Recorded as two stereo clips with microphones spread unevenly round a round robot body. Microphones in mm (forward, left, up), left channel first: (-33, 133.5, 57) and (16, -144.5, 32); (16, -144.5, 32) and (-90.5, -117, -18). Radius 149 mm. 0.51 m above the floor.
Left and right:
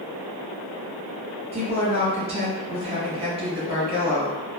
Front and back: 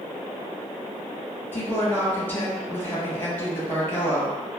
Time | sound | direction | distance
1.5 | a woman speaking | 115° right | 1.1 m